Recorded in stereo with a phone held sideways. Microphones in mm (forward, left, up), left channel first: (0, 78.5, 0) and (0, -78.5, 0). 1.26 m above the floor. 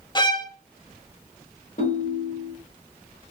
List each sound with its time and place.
0.1 s a violin: 30° left (ahead or behind), 0.6 m
1.8 s a ringtone: 60° left (ahead or behind), 1.6 m